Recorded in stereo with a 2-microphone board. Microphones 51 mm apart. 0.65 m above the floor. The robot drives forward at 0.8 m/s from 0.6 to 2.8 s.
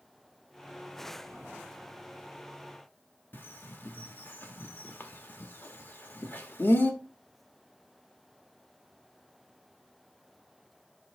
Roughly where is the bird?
Left.